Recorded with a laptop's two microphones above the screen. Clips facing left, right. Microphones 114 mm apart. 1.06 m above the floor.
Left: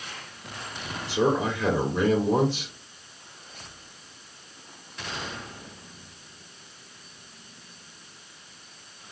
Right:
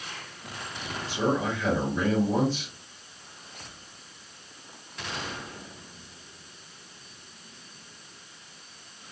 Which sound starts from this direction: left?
A man speaking, at 1.1 s.